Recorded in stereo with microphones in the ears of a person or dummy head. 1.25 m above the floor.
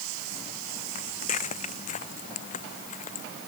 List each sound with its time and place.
0.9 s footsteps: 40° left (ahead or behind)